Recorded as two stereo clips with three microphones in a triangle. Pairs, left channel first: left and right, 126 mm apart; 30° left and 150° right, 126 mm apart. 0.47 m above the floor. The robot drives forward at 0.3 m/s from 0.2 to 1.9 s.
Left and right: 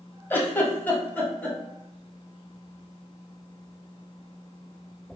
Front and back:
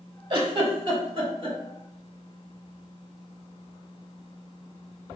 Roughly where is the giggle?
Behind.